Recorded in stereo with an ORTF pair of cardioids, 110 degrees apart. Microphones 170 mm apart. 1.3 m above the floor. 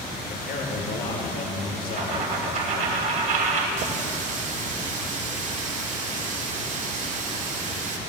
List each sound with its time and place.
0.3 s a man speaking: 60° left, 4.5 m
2.0 s a dropped coin: 50° right, 3.5 m
3.8 s a running tap: 50° right, 2 m